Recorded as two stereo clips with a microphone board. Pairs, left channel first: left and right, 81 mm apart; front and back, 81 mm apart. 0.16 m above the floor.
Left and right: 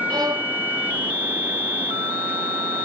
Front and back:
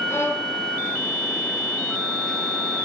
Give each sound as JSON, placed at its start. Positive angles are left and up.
{"t": 0.1, "sound": "a violin", "azimuth_deg": -60, "distance_m": 3.5}